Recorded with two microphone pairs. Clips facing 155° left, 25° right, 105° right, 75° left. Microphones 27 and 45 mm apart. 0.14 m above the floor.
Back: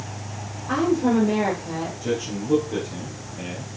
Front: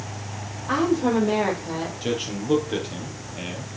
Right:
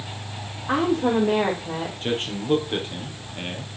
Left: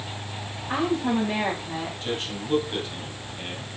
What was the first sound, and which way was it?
A woman speaking, 95° right.